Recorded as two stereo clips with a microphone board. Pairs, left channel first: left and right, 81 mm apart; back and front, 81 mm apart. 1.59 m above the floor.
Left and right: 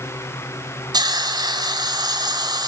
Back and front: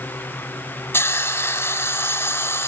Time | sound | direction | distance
0.9 | a hiss | 120° right | 6 m